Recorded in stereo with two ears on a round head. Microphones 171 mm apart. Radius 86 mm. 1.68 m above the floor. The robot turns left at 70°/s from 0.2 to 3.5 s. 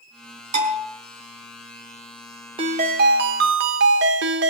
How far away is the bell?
About 4.5 m.